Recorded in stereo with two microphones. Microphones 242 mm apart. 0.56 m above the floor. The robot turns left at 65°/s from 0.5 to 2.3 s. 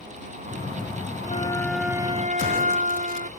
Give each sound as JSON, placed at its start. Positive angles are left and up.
{"t": 1.3, "sound": "a flute", "azimuth_deg": 30}